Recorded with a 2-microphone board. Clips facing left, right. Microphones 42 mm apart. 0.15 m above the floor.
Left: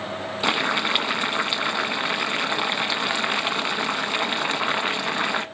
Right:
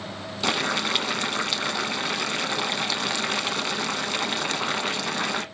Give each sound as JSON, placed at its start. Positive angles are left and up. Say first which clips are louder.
{"t": 0.4, "sound": "boiling", "louder": "left 2 dB", "side_deg": 20, "distance_m": 0.6}